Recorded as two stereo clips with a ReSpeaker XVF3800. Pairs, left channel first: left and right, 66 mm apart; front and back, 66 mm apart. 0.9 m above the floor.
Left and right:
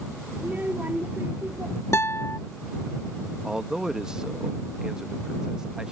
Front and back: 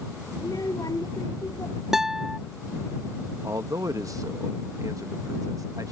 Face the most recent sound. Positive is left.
turn(degrees=-165)